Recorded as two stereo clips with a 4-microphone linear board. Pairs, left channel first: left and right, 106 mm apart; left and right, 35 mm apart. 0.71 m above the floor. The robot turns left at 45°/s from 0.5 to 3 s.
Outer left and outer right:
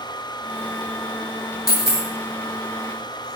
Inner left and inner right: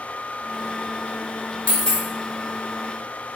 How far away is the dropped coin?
About 0.9 m.